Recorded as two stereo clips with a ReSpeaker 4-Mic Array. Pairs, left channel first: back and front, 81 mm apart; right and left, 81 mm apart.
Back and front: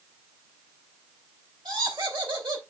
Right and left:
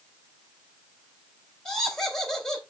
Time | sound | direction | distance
1.6 | laughter | 5° right | 3.5 m